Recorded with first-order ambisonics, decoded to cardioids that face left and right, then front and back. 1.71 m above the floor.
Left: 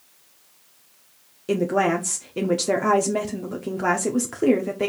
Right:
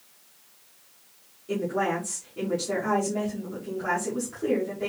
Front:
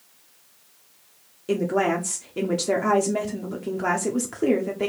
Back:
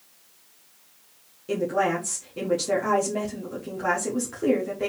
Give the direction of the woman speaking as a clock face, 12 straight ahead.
10 o'clock.